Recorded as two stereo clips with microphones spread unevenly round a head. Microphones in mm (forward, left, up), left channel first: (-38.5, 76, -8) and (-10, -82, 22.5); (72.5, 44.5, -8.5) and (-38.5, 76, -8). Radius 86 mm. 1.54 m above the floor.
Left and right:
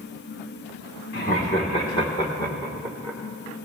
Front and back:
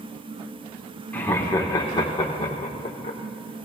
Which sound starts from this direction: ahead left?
Laughter, at 1.1 s.